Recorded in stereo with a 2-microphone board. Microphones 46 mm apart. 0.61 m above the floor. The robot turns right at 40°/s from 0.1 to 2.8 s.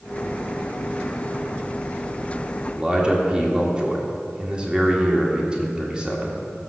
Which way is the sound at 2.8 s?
20° right (ahead or behind).